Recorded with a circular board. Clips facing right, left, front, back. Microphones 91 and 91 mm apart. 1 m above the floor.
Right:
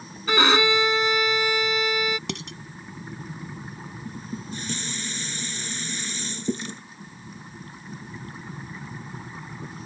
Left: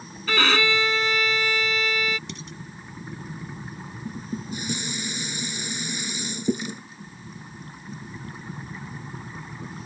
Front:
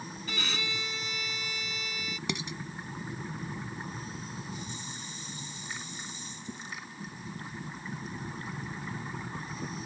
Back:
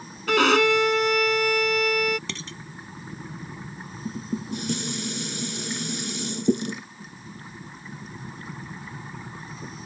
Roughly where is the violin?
Behind.